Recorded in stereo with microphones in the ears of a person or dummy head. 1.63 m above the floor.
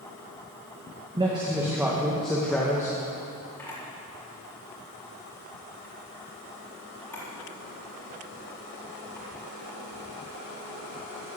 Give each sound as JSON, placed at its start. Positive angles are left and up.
{"t": 1.2, "sound": "a man speaking", "side_deg": -20, "distance_m": 1.8}
{"t": 3.6, "sound": "a camera shutter", "side_deg": 10, "distance_m": 4.0}